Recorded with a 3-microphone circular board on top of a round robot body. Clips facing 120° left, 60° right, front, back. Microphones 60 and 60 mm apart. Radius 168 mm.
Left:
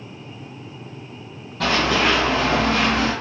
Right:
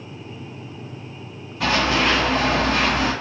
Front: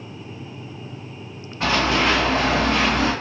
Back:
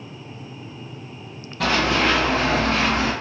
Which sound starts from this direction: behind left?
Running footsteps, at 1.6 s.